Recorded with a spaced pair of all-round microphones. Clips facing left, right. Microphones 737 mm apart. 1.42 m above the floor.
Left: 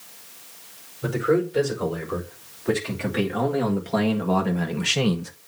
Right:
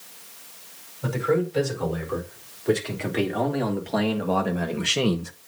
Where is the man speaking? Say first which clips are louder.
Left 2 dB; 45° left (ahead or behind), 4.5 m; by 5.3 s 20° left (ahead or behind), 0.8 m.